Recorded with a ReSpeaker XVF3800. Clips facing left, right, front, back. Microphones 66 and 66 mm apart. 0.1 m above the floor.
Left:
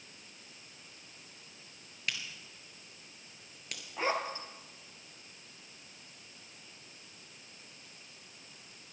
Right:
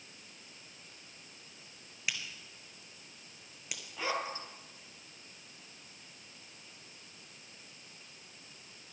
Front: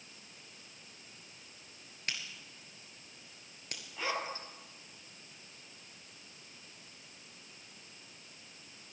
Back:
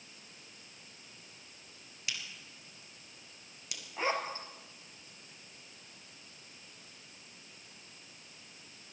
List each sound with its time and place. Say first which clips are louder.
2.1 s a crack: even, front 1 dB; 10° right, 2 m
4.0 s a zipper: left 3 dB, back 3 dB; 130° left, 1.6 m